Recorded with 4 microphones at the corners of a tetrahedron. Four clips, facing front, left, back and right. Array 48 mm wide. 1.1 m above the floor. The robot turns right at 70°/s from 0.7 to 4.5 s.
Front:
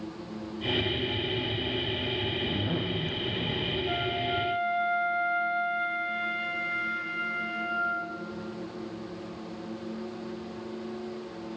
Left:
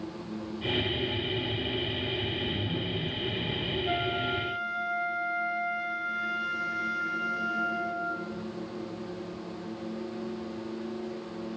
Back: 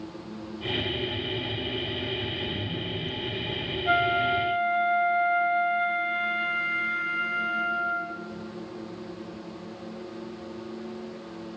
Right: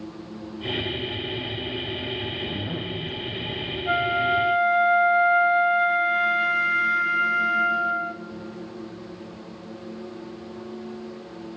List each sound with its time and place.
2.3 s a zipper: 65° right, 1.0 m; by 3.8 s 35° left, 1.0 m
3.9 s a flute: 150° right, 0.7 m; by 8.1 s 105° right, 0.7 m